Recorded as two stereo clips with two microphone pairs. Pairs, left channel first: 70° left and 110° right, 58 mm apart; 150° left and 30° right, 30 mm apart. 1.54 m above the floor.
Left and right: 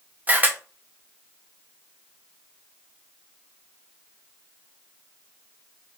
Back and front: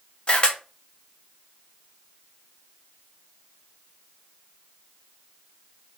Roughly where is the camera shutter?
Behind.